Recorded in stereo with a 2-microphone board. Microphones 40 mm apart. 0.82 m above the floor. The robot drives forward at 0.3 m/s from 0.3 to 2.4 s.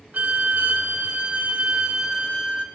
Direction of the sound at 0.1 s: 40° right (ahead or behind).